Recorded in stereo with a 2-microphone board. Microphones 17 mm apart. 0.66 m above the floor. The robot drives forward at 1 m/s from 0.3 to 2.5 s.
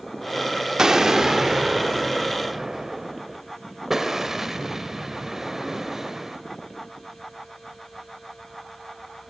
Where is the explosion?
30° right (ahead or behind), 1.7 m; by 6.4 s 15° right (ahead or behind), 3 m.